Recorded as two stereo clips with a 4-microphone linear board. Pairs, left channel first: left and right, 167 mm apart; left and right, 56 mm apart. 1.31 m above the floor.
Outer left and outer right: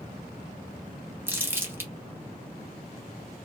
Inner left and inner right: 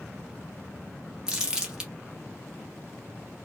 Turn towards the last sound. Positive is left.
turn(degrees=-15)  # may be behind; listen again after turning